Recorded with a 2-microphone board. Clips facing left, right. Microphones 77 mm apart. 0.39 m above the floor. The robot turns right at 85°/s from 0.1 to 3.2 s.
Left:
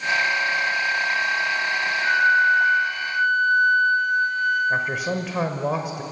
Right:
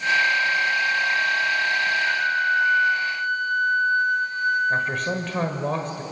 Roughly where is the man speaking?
Centre.